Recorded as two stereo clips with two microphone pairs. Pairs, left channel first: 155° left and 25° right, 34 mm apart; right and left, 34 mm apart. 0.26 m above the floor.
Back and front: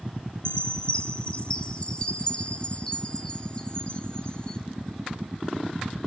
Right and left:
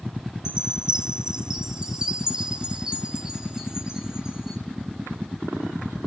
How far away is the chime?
About 1.3 m.